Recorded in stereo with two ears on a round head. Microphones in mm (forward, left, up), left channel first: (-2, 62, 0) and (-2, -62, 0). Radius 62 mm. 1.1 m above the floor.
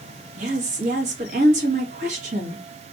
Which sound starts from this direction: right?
A woman speaking, at 0.4 s.